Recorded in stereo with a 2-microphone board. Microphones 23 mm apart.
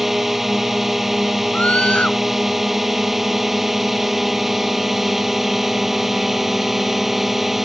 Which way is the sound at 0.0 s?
10° right (ahead or behind).